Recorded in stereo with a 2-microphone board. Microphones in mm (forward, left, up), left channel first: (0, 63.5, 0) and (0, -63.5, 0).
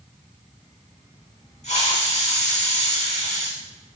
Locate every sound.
1.6 s a hiss: 70° left (ahead or behind), 3 m